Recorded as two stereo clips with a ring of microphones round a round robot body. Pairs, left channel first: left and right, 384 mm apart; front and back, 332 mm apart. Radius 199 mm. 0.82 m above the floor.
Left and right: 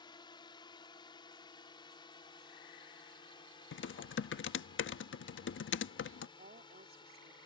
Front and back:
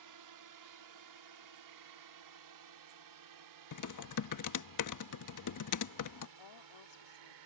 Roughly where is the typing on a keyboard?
Ahead left.